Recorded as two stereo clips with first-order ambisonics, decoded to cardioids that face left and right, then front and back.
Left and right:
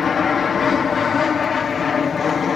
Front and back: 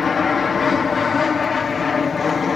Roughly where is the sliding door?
No sliding door in this recording.